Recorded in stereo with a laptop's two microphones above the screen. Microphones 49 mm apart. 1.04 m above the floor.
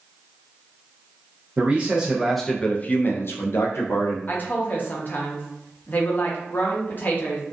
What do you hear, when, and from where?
1.6 s a man speaking: 30° right (ahead or behind), 0.7 m; by 4.2 s 75° left (ahead or behind), 0.9 m
4.3 s a woman speaking: 45° left (ahead or behind), 0.7 m